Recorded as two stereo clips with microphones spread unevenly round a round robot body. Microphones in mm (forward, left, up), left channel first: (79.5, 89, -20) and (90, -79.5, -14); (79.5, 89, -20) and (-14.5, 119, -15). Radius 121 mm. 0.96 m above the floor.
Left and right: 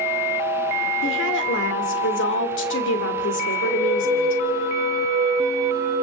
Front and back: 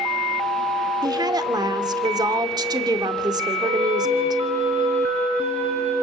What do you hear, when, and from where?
1.0 s a woman speaking: 115° left, 2.5 m
3.6 s a flute: straight behind, 7 m